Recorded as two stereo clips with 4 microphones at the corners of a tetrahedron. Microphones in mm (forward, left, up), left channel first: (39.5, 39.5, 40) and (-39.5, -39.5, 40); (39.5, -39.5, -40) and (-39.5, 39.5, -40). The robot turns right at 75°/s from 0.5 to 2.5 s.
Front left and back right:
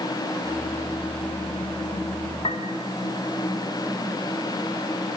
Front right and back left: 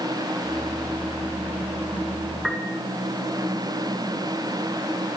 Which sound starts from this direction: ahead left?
A piano, at 2.4 s.